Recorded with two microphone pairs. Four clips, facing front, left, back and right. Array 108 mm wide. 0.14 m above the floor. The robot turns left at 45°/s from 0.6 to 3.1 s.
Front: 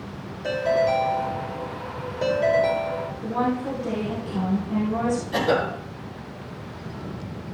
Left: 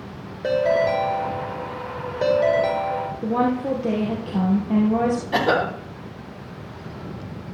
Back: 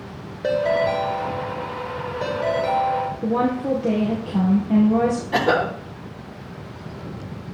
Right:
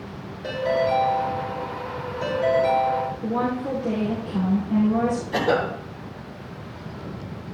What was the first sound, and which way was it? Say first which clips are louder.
A ringtone: left 3 dB, back 2 dB; 155° left.